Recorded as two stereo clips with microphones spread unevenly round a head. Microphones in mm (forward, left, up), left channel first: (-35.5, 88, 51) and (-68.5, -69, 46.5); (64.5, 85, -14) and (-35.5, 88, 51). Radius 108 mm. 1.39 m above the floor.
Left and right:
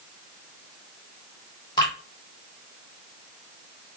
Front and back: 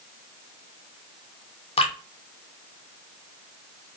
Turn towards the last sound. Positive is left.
turn(degrees=10)